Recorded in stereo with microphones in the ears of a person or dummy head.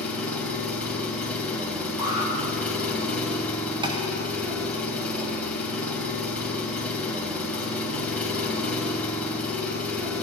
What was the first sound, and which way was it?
An engine running, 10° left (ahead or behind).